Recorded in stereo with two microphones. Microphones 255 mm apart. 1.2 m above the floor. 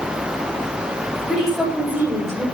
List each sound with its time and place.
1.3 s a woman speaking: centre (ahead or behind), 4.5 m; by 2.5 s 15° right (ahead or behind), 3 m